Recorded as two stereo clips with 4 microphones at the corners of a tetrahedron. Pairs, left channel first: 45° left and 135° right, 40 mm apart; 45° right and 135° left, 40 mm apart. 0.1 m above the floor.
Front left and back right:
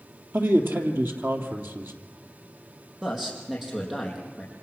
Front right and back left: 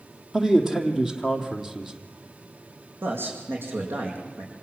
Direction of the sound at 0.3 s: 145° right.